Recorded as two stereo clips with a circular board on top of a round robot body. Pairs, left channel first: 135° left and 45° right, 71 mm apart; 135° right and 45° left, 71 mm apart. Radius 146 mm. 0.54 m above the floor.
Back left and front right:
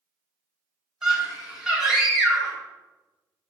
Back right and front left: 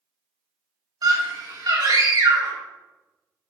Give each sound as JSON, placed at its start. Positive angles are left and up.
{"t": 1.0, "sound": "a scream", "azimuth_deg": 35, "distance_m": 2.5}